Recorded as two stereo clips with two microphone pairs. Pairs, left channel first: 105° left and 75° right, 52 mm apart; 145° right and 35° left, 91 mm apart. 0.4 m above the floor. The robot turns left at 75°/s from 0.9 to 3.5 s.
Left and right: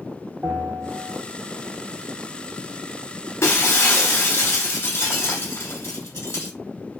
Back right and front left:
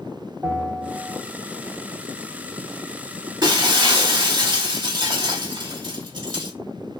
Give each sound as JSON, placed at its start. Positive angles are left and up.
{"t": 0.4, "sound": "a bell", "azimuth_deg": -25, "distance_m": 1.0}
{"t": 3.4, "sound": "breaking glass", "azimuth_deg": 70, "distance_m": 0.9}